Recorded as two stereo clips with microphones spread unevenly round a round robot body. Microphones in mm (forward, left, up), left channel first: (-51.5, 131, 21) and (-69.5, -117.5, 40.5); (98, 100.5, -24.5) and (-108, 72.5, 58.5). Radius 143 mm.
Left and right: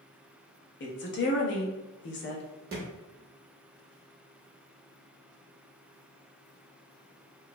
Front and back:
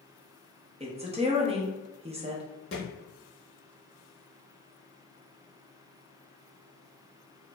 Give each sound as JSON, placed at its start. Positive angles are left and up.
{"t": 0.8, "sound": "a woman speaking", "azimuth_deg": 115, "distance_m": 0.8}
{"t": 2.7, "sound": "a thud", "azimuth_deg": -60, "distance_m": 0.5}